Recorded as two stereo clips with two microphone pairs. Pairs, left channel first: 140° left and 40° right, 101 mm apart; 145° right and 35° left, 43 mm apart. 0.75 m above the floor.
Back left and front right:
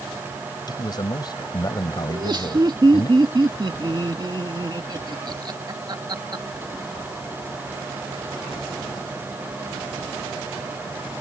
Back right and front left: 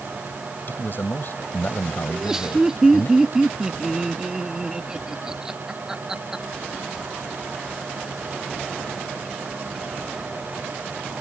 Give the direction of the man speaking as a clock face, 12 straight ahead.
6 o'clock.